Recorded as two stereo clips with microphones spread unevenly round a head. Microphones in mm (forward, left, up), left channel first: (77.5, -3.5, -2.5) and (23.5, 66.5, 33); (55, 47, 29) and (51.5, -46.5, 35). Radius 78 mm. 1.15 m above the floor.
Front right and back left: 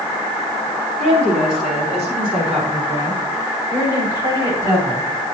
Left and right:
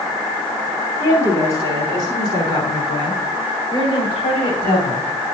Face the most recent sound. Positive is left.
turn(degrees=100)